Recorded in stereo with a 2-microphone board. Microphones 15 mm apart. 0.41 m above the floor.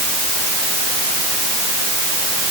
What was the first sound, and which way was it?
Only background noise.